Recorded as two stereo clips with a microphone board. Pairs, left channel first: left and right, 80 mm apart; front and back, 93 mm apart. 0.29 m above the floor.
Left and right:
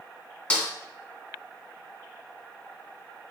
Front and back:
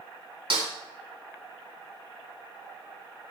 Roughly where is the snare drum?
Behind.